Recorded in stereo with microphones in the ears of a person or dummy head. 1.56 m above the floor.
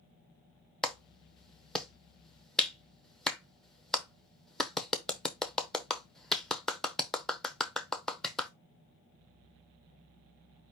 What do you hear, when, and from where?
0.8 s a clap: centre (ahead or behind), 0.7 m